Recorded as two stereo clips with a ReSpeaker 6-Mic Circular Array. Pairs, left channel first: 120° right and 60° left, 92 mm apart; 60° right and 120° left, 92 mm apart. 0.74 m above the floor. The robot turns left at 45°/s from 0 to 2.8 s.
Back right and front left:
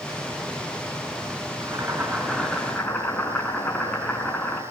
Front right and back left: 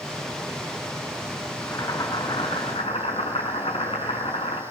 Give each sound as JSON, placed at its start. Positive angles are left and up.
{"t": 1.6, "sound": "boiling", "azimuth_deg": 5, "distance_m": 5.0}